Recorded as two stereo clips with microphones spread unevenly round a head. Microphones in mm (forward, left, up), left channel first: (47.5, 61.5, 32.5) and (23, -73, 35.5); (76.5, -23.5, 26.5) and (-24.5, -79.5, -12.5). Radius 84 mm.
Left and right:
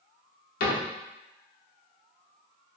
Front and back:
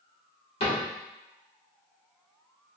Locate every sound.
0.6 s a cupboard door: 70° left, 0.8 m